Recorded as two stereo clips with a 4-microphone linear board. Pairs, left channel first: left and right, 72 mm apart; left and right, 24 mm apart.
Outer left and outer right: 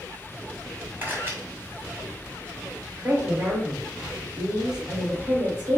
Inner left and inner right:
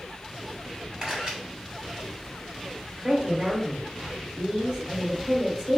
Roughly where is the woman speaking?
Right.